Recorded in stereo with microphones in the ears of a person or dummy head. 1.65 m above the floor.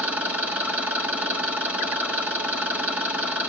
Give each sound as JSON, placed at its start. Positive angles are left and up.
{"t": 0.0, "sound": "an engine running", "side_deg": -5, "distance_m": 2.0}